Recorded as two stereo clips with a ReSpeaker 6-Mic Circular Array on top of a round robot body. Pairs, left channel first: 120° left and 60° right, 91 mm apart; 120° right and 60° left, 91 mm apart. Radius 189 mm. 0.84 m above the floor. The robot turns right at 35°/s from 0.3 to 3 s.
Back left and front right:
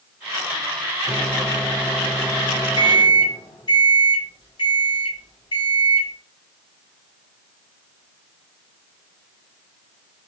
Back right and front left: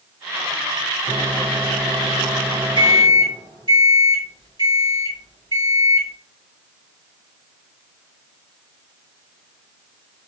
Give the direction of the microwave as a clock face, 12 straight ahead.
11 o'clock.